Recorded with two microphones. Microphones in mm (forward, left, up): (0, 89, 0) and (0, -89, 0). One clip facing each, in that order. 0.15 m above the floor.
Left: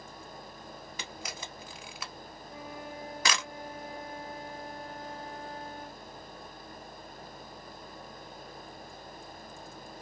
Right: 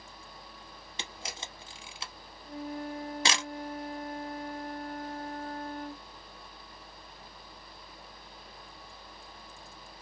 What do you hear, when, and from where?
1.0 s a camera shutter: 25° right (ahead or behind), 0.6 m
2.5 s a flute: 50° right (ahead or behind), 1.0 m